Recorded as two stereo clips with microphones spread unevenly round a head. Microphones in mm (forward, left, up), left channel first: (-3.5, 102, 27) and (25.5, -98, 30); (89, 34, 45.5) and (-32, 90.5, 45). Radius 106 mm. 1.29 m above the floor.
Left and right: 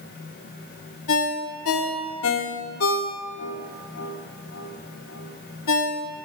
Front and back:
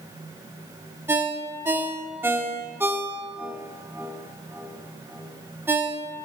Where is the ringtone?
80° left, 1.4 m.